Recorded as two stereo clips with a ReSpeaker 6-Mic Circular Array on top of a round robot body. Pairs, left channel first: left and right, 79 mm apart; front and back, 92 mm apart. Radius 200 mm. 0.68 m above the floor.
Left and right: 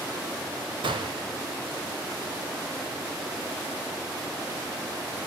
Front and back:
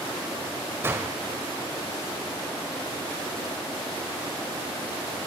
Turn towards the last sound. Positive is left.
turn(degrees=-115)